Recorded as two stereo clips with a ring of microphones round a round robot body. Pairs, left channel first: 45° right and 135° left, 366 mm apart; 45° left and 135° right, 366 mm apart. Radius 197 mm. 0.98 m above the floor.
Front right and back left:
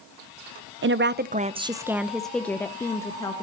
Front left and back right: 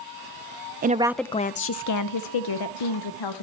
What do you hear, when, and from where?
0.8 s a woman speaking: 175° left, 0.5 m; by 3.4 s 35° left, 1.3 m